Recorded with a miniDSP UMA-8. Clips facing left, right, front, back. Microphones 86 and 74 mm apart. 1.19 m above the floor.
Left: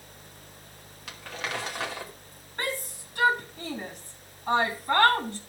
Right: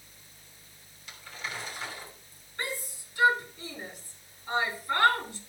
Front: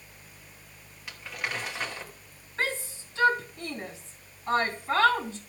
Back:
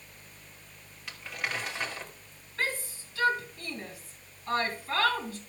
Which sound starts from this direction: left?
Crumpling, at 1.1 s.